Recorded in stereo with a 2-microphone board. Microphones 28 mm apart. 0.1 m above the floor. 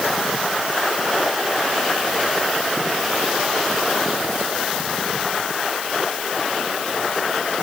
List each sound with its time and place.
Only background noise.